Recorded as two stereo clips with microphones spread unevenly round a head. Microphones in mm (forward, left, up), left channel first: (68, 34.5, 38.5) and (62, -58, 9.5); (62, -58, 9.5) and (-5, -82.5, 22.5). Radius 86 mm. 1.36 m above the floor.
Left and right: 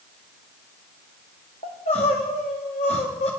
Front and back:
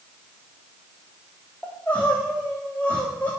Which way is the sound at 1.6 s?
105° left.